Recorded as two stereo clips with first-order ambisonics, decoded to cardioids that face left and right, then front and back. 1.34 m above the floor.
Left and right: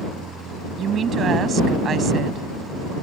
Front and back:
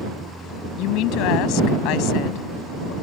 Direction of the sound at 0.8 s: 30° right.